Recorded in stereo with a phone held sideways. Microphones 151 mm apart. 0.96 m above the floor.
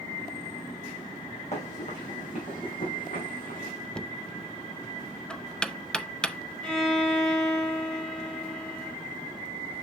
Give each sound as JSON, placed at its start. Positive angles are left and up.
{"t": 1.5, "sound": "running footsteps", "side_deg": 50, "distance_m": 3.5}
{"t": 4.0, "sound": "knocking", "side_deg": 5, "distance_m": 0.6}
{"t": 6.6, "sound": "a violin", "side_deg": 5, "distance_m": 2.5}